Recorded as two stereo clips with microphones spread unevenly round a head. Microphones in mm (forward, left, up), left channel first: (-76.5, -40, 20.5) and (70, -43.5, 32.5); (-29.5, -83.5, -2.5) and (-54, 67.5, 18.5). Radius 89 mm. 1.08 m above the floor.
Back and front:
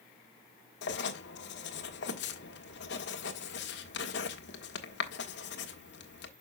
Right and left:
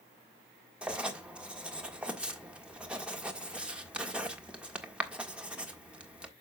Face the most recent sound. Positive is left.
turn(degrees=180)